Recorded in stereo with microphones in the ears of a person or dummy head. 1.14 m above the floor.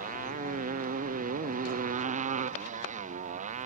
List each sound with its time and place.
0.0 s a motorcycle: 45° right (ahead or behind); by 3.7 s 40° right (ahead or behind)